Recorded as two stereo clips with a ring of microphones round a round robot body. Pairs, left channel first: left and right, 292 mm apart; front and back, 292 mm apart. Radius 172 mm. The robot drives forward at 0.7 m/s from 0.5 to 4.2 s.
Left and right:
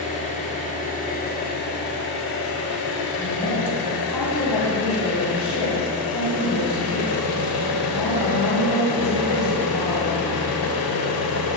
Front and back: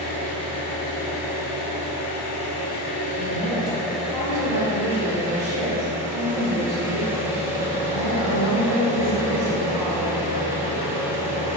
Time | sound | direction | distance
0.0 | an engine running | 25° left | 2.5 m
3.2 | a woman speaking | 105° left | 2.5 m